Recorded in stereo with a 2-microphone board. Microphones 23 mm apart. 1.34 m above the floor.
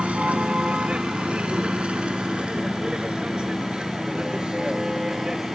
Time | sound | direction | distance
0.0 | a vehicle | 75° right (ahead or behind) | ?